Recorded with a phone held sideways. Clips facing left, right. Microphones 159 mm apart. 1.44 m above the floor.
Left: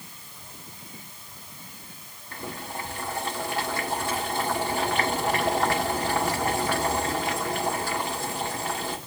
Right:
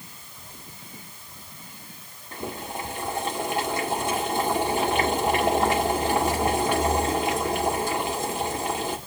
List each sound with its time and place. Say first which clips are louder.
2.3 s boiling: right 3 dB; 20° right (ahead or behind), 2.0 m